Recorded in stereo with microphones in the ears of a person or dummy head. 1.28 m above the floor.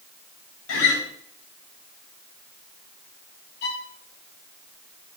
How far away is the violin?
About 2 m.